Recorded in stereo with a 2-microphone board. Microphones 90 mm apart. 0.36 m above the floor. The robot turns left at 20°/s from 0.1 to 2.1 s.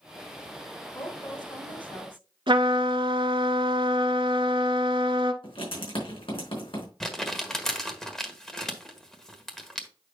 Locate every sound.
0.9 s a woman speaking: 55° left (ahead or behind), 3.5 m; by 2.3 s 70° left (ahead or behind), 3.5 m
2.5 s a trumpet: 75° right (ahead or behind), 1.2 m
5.4 s writing: 75° left (ahead or behind), 4.5 m
7.0 s crumpling: 5° left (ahead or behind), 1.5 m